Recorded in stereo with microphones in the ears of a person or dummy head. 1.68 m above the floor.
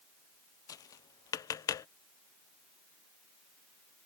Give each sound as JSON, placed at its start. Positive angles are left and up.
{"t": 0.7, "sound": "tapping", "side_deg": 15}